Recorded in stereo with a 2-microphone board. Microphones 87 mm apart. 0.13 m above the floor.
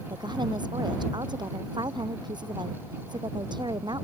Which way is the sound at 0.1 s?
55° right (ahead or behind).